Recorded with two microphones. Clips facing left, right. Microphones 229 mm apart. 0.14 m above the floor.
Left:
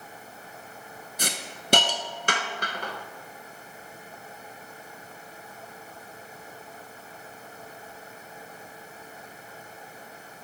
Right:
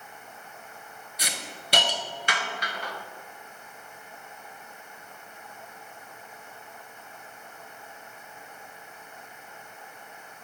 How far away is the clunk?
No clunk in this recording.